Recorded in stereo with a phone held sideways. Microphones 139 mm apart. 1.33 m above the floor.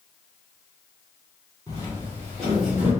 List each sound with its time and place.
1.7 s footsteps: 25° left (ahead or behind), 1.7 m; by 2.9 s 15° right (ahead or behind), 1.3 m